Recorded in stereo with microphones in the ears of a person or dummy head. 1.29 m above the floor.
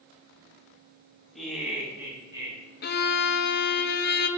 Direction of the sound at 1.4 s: 5° left (ahead or behind).